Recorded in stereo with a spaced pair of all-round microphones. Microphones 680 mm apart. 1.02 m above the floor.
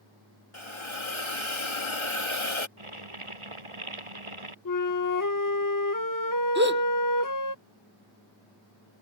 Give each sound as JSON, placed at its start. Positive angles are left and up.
{"t": 0.5, "sound": "a hiss", "side_deg": 45}
{"t": 2.8, "sound": "boiling", "side_deg": -45}
{"t": 4.7, "sound": "a flute", "side_deg": 30}
{"t": 6.5, "sound": "a gasp", "side_deg": -15}